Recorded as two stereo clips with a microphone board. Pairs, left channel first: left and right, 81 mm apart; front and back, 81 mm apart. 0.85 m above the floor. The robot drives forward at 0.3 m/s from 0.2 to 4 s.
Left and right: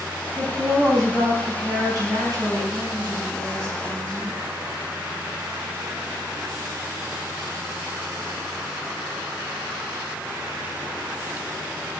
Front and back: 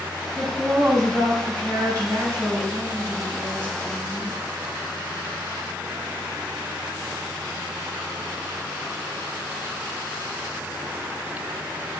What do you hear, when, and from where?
0.3 s a woman speaking: 130° right, 4 m; by 4.3 s 140° right, 5 m